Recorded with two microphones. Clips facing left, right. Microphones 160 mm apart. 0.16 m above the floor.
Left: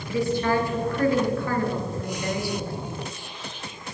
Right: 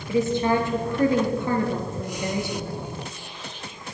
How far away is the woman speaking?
About 3 m.